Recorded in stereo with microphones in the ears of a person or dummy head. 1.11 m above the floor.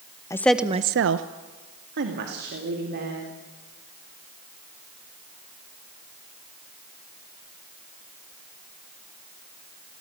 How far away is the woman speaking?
About 1.0 m.